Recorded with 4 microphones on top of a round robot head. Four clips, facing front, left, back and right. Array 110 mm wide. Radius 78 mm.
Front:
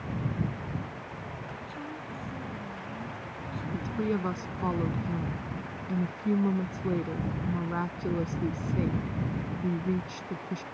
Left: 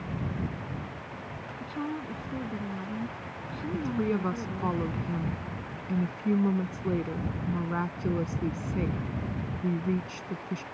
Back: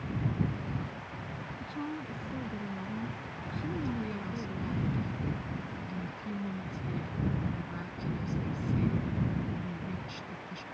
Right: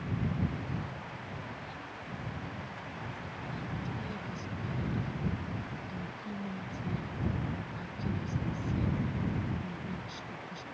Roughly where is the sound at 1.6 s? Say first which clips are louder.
Left 10 dB, back 2 dB; left.